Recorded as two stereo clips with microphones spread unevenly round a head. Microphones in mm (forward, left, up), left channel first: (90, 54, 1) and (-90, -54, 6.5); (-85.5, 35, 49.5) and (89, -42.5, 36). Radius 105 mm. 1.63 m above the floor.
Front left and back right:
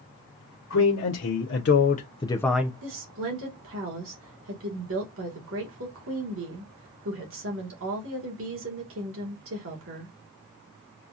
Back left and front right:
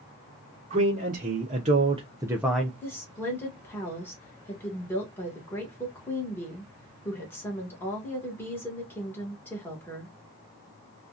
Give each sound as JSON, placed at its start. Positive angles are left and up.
{"t": 0.7, "sound": "a man speaking", "azimuth_deg": 25, "distance_m": 1.1}
{"t": 2.8, "sound": "a woman speaking", "azimuth_deg": -125, "distance_m": 1.5}